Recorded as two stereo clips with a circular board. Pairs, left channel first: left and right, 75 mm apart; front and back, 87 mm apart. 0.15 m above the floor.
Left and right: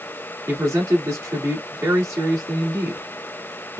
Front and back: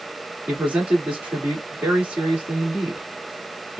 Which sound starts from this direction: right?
A man speaking, at 0.5 s.